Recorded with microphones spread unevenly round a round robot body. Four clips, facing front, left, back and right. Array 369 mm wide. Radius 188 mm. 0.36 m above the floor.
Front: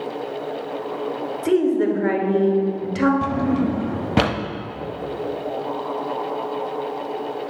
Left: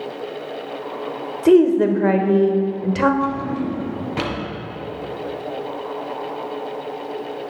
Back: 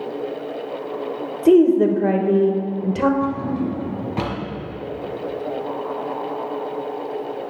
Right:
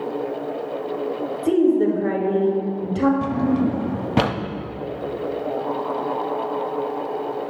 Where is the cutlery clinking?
No cutlery clinking in this recording.